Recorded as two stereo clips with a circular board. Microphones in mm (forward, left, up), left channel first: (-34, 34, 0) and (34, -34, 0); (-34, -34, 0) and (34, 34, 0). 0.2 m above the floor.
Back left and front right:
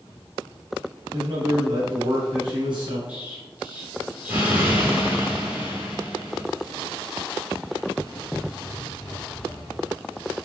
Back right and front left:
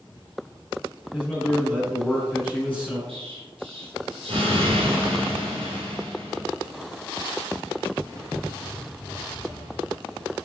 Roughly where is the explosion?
Ahead left.